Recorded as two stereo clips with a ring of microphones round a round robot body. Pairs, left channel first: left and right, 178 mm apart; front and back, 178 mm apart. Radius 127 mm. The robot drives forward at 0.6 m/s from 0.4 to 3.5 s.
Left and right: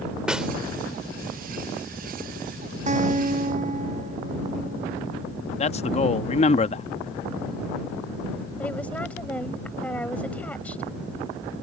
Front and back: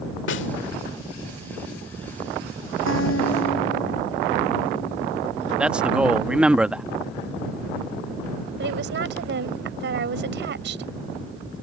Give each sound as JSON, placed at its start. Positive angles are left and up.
{"t": 0.3, "sound": "a snare drum", "azimuth_deg": -5}
{"t": 2.9, "sound": "a guitar", "azimuth_deg": -45}
{"t": 5.6, "sound": "a man speaking", "azimuth_deg": 100}
{"t": 8.6, "sound": "a woman speaking", "azimuth_deg": 175}